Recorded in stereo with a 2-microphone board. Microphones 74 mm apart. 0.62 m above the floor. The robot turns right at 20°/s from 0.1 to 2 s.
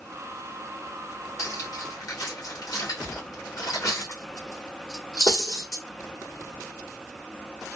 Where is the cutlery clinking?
45° left (ahead or behind), 1.4 m; by 5.8 s 55° left (ahead or behind), 1.4 m.